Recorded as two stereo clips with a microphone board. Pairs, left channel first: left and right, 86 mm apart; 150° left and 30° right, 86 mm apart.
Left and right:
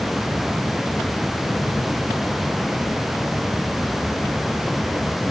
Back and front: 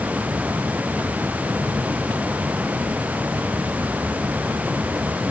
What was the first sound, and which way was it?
Only background noise.